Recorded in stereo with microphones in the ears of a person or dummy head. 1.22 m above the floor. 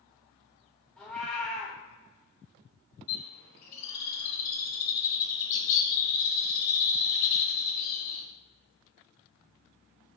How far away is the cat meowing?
About 1.0 m.